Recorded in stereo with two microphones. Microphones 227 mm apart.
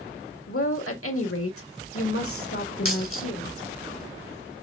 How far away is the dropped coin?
About 1.6 m.